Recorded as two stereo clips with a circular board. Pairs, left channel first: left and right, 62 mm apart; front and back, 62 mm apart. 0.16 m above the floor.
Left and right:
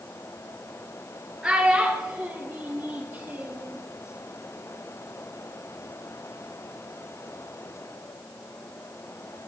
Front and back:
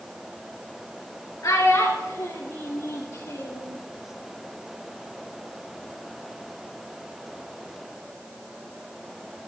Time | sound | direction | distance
1.4 | a child speaking | 15° right | 2.5 m